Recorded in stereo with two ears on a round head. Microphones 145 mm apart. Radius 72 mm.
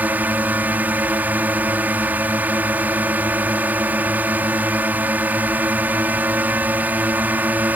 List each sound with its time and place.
0.0 s a drone: 10° right (ahead or behind)